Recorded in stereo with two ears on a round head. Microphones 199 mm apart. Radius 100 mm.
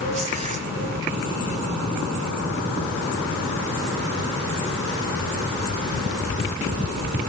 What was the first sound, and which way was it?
Tearing paper, 30° right (ahead or behind).